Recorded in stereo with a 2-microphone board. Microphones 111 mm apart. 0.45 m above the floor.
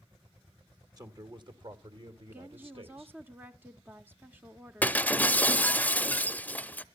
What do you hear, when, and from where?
1.0 s a man speaking: 35° right (ahead or behind), 1.4 m; by 3.2 s 60° right (ahead or behind), 2.5 m
2.3 s a woman speaking: 20° right (ahead or behind), 0.8 m
4.8 s breaking glass: 15° left (ahead or behind), 0.6 m